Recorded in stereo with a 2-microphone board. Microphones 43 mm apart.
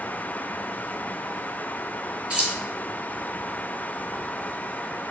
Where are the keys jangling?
20° right (ahead or behind), 1.8 m.